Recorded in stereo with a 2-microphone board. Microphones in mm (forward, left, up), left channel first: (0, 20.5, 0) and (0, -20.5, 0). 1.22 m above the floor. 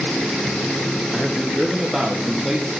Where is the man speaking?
10° right (ahead or behind), 0.7 m.